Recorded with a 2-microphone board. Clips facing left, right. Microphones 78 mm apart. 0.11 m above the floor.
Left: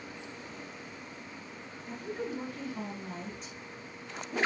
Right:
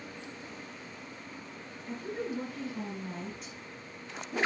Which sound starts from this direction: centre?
A woman speaking, at 1.9 s.